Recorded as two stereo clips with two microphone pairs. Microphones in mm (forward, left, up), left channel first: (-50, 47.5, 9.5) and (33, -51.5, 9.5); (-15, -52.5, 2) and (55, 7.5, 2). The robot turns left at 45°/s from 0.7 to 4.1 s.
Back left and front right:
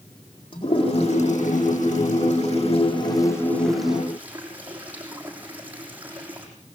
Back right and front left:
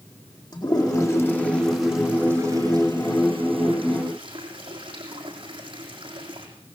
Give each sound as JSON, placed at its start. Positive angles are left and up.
{"t": 0.5, "sound": "a toilet flushing", "azimuth_deg": 180, "distance_m": 7.5}